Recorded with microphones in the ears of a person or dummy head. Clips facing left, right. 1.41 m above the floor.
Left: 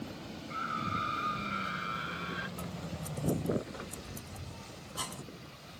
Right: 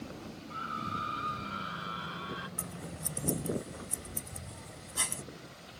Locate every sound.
0.5 s a scream: 30° left (ahead or behind); by 2.5 s 25° left (ahead or behind)
2.6 s scissors: 35° right (ahead or behind)